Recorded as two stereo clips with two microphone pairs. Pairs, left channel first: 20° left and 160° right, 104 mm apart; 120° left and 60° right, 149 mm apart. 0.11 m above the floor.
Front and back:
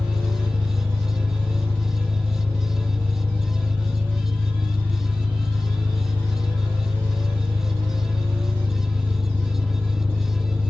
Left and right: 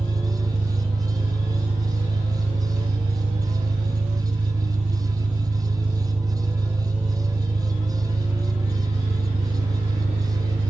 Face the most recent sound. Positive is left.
turn(degrees=-85)